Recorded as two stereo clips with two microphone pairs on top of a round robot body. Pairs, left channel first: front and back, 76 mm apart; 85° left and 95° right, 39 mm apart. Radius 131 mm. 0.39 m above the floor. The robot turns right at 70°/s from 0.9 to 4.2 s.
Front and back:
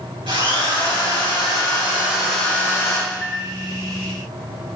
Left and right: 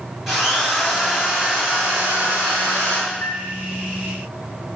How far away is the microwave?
About 2 m.